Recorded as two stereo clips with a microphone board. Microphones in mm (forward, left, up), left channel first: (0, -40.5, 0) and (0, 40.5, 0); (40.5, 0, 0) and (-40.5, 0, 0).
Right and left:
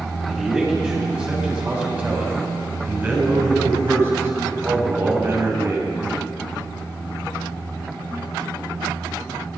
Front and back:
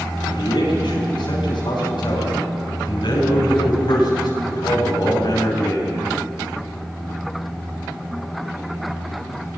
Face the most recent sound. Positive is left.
turn(degrees=40)